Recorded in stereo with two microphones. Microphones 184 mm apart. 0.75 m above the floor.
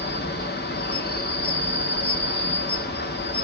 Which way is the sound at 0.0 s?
65° left (ahead or behind).